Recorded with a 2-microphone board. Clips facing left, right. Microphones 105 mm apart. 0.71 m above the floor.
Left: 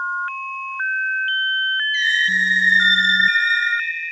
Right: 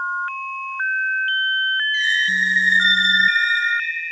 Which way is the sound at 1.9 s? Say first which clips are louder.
Left 1 dB; 35° right (ahead or behind).